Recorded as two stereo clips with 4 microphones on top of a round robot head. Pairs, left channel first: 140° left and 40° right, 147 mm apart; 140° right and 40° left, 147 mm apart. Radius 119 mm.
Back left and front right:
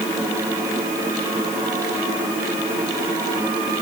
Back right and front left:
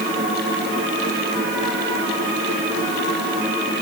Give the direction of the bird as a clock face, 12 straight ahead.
I don't hear a bird.